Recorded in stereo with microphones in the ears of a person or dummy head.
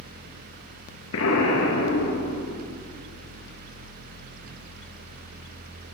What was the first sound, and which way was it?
An explosion, 75° left (ahead or behind).